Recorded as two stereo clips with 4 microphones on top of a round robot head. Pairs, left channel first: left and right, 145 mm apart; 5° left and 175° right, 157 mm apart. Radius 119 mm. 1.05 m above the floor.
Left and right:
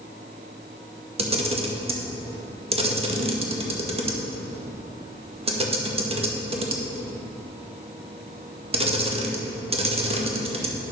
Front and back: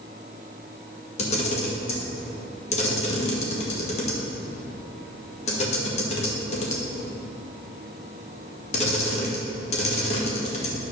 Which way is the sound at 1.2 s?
45° right.